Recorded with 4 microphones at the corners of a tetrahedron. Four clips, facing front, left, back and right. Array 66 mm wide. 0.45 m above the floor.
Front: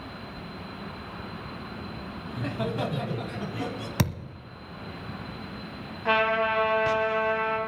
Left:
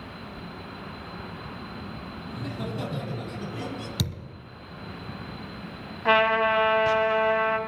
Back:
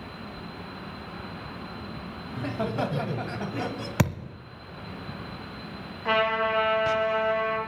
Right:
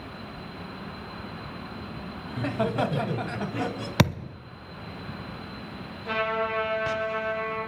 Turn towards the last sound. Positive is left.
turn(degrees=85)